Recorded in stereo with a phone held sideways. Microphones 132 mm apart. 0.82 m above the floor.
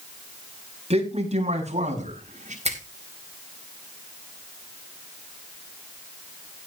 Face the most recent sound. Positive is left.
turn(degrees=-60)  # may be behind; listen again after turning